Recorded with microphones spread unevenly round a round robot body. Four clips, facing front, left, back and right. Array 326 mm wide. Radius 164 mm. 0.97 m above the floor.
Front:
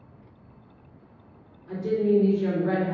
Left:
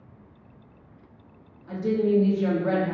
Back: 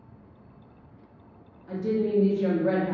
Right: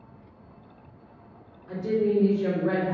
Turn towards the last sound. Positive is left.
turn(degrees=130)